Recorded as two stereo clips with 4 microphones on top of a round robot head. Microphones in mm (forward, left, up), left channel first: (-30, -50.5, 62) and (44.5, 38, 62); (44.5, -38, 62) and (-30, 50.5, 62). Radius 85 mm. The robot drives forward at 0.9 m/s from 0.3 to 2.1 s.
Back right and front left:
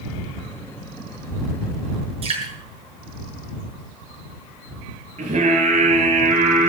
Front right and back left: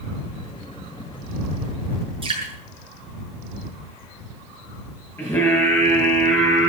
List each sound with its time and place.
2.2 s dripping: 90° left, 7.5 m
5.2 s singing: 25° left, 10 m